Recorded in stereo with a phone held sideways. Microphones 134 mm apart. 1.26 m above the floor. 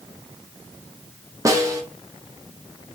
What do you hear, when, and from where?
1.4 s a snare drum: 25° right (ahead or behind), 0.7 m